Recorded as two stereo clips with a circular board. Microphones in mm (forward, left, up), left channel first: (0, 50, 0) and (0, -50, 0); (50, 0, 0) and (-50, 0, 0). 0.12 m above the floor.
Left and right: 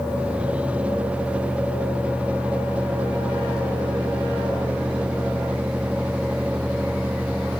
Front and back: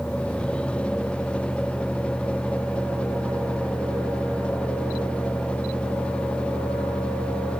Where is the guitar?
I don't hear a guitar.